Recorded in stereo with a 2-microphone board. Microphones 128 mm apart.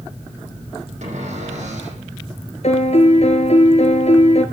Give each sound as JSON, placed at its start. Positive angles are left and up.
{"t": 1.0, "sound": "a cupboard door", "side_deg": -70, "distance_m": 8.5}
{"t": 2.6, "sound": "a piano", "side_deg": 60, "distance_m": 2.5}